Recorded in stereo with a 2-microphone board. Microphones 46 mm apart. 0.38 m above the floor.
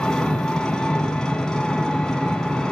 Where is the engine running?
15° left (ahead or behind), 1.6 m.